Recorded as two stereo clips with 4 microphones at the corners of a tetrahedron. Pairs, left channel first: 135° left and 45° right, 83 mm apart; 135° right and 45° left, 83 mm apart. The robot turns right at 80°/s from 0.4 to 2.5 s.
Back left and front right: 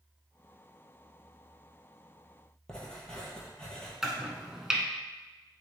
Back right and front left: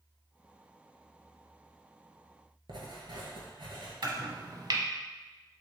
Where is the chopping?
40° left, 0.6 m.